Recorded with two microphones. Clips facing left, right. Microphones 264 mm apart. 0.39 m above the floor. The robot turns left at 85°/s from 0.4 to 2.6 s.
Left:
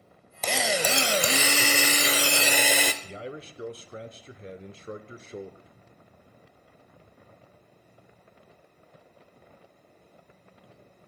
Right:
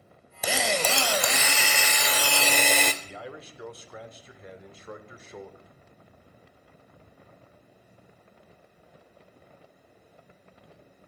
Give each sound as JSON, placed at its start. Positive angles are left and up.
{"t": 0.4, "sound": "a drill", "azimuth_deg": -165, "distance_m": 0.9}
{"t": 3.0, "sound": "a man speaking", "side_deg": 30, "distance_m": 0.9}